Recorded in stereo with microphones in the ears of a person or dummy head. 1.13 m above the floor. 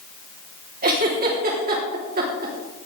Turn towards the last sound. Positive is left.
turn(degrees=-45)  # may be behind; listen again after turning